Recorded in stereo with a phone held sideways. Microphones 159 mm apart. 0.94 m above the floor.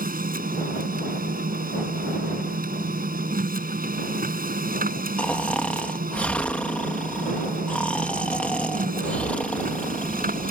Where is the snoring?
10° left (ahead or behind).